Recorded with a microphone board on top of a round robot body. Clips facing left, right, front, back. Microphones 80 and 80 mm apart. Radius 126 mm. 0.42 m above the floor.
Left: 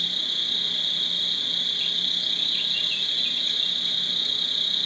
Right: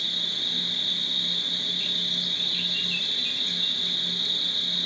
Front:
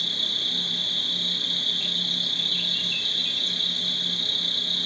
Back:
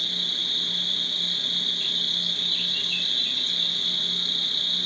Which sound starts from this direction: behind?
An insect, at 0.0 s.